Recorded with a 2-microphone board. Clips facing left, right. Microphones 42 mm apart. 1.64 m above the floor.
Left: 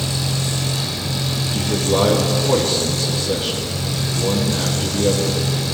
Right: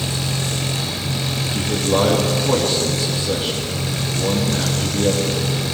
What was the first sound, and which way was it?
An engine running, 35° right (ahead or behind).